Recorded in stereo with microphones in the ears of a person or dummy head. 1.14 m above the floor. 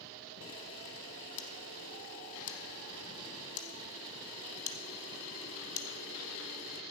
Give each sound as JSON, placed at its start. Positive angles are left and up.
{"t": 0.4, "sound": "a camera shutter", "side_deg": 40, "distance_m": 1.0}